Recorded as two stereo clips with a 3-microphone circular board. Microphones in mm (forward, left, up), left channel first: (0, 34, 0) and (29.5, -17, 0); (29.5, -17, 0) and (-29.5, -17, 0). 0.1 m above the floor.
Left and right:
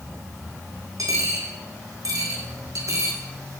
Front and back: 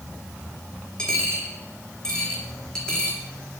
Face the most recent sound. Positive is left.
turn(degrees=-80)